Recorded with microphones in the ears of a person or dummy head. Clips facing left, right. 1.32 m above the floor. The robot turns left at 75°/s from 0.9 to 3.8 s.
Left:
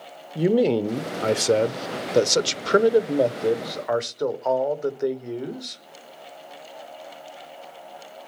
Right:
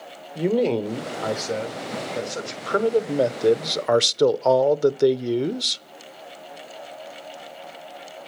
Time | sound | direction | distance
0.3 | a man speaking | 170° left | 0.6 m